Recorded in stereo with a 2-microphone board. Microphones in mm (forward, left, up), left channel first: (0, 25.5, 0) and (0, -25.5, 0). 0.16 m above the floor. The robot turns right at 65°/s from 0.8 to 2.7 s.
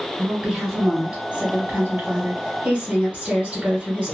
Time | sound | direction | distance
0.2 | a woman speaking | 170° right | 1.5 m